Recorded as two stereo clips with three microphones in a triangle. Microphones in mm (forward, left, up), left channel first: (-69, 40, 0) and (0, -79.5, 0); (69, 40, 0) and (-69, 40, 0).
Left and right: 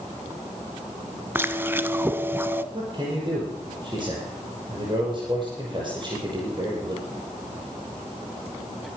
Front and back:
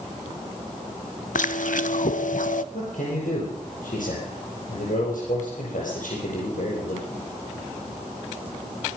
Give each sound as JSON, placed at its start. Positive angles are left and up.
{"t": 1.4, "sound": "chewing", "azimuth_deg": 10, "distance_m": 0.6}
{"t": 2.7, "sound": "a man speaking", "azimuth_deg": -5, "distance_m": 6.0}